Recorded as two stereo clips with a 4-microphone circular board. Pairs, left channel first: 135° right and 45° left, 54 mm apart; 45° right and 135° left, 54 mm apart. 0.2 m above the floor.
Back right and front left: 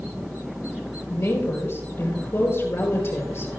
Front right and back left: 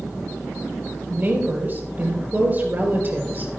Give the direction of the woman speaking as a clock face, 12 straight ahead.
6 o'clock.